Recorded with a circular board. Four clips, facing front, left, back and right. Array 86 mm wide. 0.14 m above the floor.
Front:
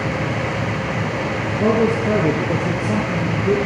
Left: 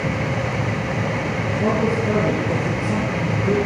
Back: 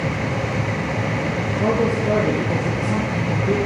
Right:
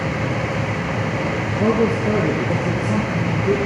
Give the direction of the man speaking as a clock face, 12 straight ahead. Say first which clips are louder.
Right 3 dB, front 3 dB; 1 o'clock.